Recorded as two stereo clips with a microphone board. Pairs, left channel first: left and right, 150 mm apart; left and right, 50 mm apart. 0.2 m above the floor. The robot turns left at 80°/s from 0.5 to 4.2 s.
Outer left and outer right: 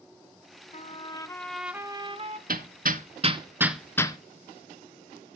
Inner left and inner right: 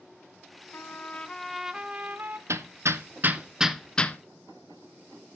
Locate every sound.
0.7 s a trumpet: 65° left, 0.7 m; by 2.4 s 65° right, 0.7 m
2.5 s hammering: 70° right (ahead or behind), 0.6 m; by 4.2 s 30° left (ahead or behind), 0.6 m